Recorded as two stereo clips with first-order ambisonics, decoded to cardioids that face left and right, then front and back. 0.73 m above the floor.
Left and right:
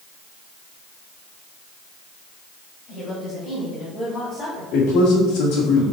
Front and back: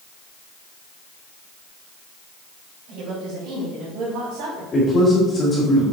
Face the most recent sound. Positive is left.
turn(degrees=70)